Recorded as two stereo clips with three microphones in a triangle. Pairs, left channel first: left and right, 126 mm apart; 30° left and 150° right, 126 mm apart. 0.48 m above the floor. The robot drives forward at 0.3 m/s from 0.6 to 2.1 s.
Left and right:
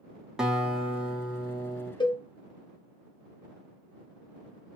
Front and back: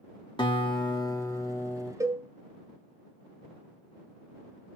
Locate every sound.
0.4 s a guitar: 5° right, 0.8 m; by 1.9 s 25° right, 0.6 m
2.0 s a cowbell: 145° left, 0.5 m